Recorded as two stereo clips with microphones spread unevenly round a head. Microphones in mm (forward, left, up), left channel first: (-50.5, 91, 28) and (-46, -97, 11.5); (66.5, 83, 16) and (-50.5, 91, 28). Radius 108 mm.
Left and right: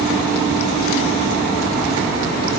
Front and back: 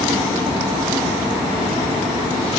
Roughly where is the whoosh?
I don't hear a whoosh.